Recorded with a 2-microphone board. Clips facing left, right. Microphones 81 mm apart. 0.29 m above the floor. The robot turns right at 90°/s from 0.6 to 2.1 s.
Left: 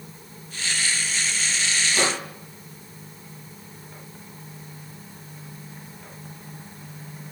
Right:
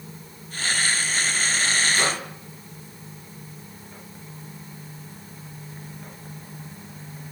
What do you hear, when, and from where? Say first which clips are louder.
1.9 s a microwave: even; 60° left (ahead or behind), 7 m; by 2.2 s 45° left (ahead or behind), 7 m